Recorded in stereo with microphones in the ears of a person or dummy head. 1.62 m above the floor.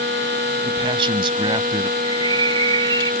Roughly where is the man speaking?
Right.